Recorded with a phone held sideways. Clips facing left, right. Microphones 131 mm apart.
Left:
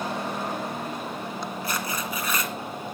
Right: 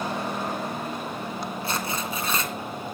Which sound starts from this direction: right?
Tearing paper, at 1.6 s.